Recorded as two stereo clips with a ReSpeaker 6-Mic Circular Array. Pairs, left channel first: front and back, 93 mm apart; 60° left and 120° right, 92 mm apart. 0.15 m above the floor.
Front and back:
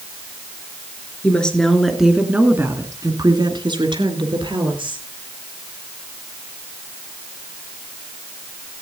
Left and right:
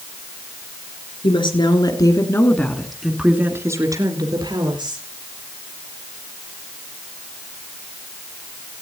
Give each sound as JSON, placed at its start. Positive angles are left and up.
{"t": 1.2, "sound": "a woman speaking", "azimuth_deg": 75, "distance_m": 3.0}